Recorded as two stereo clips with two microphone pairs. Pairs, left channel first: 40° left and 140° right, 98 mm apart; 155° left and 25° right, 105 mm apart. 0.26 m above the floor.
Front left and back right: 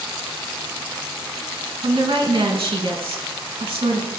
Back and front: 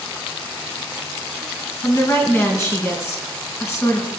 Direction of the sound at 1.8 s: 145° right.